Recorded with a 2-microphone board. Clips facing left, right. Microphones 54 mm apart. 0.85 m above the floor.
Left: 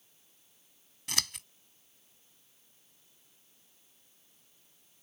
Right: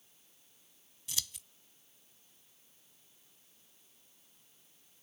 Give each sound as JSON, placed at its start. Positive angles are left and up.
{"t": 1.1, "sound": "scissors", "side_deg": 70}